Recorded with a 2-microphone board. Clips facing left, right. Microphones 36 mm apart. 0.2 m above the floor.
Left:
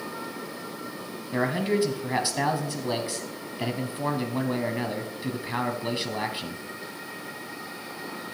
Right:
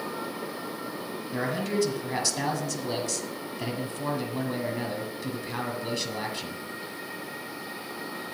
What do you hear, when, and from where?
1.3 s a man speaking: 25° left (ahead or behind), 1.1 m